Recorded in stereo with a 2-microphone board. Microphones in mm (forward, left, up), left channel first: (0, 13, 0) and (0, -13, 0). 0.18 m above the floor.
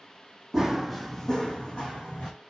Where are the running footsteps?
30° right (ahead or behind), 0.5 m; by 2.3 s 55° left (ahead or behind), 1.0 m.